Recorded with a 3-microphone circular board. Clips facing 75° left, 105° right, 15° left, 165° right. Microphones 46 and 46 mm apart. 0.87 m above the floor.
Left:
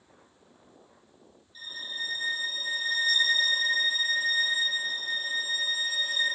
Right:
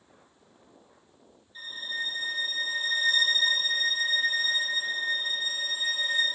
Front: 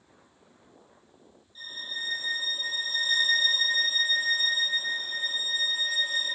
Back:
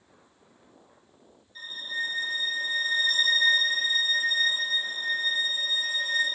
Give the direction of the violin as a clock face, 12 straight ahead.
5 o'clock.